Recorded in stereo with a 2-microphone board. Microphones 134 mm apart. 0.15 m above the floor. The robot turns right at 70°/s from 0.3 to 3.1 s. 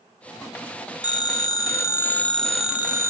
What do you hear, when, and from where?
1.0 s a phone ringing: 75° left, 0.7 m; by 3.1 s 140° right, 0.7 m